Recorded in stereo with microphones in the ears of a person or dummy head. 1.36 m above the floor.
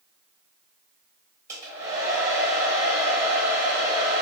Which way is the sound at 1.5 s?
20° right (ahead or behind).